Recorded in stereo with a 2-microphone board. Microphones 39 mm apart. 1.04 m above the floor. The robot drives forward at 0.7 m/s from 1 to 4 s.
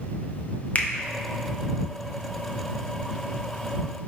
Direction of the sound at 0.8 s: 35° left (ahead or behind).